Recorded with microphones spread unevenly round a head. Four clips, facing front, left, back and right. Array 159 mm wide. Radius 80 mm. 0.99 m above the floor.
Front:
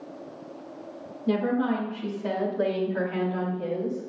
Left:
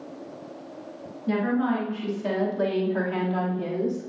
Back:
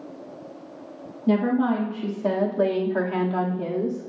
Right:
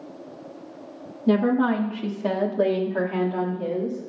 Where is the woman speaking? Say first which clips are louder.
Right 4 dB, back 4 dB; 120° right, 2.5 m; by 4.1 s 175° left, 3.5 m.